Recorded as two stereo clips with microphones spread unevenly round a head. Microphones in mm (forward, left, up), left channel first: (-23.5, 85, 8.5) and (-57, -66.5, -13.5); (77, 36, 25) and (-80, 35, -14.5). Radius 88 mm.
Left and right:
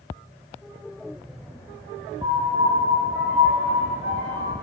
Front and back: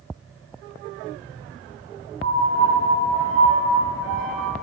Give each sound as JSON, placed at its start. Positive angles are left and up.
{"t": 2.2, "sound": "a piano", "azimuth_deg": -150, "distance_m": 1.4}